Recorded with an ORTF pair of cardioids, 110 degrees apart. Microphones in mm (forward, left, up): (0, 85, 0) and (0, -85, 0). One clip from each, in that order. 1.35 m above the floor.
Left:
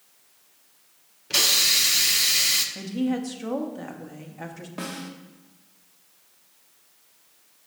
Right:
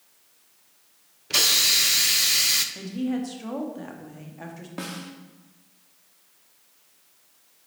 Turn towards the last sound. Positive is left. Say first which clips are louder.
# left 1 dB
turn(degrees=-10)